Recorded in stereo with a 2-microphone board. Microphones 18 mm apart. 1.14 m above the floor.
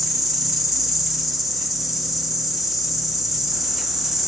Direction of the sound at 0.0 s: 10° right (ahead or behind).